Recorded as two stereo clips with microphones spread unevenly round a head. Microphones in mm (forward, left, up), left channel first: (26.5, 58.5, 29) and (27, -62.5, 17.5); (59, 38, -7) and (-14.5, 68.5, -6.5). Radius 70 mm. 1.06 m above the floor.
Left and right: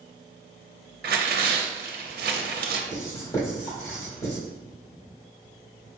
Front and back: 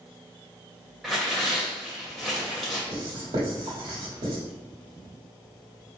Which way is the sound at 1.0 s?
115° right.